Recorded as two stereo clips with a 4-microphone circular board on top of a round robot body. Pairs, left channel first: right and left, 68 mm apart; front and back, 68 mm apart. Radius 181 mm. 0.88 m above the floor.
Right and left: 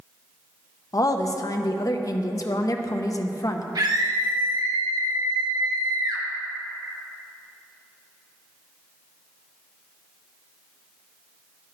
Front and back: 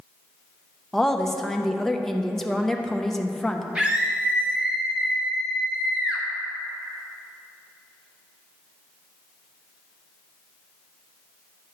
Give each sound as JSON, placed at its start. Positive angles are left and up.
{"t": 0.9, "sound": "a woman speaking", "azimuth_deg": -85, "distance_m": 1.0}
{"t": 3.8, "sound": "a scream", "azimuth_deg": 105, "distance_m": 2.5}